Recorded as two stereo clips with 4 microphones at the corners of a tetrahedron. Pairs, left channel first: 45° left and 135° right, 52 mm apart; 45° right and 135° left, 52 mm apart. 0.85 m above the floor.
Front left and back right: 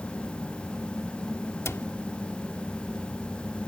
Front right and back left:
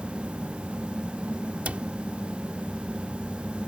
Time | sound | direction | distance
1.6 | a cupboard door | 75° left | ?